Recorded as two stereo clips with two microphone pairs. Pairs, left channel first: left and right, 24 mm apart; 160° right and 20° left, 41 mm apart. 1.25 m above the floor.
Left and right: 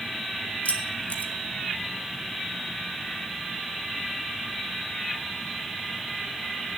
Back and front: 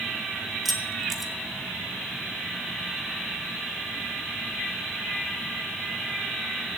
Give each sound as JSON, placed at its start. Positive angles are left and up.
{"t": 0.7, "sound": "keys jangling", "azimuth_deg": 110, "distance_m": 1.6}